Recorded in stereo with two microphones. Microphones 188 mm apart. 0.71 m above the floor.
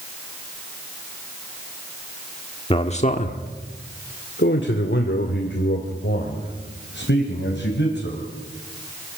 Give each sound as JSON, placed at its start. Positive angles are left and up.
{"t": 2.7, "sound": "a man speaking", "side_deg": 30, "distance_m": 1.4}